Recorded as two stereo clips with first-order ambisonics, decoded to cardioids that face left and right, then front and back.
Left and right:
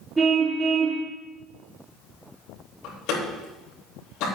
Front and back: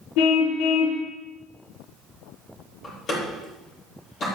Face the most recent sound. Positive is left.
turn(degrees=60)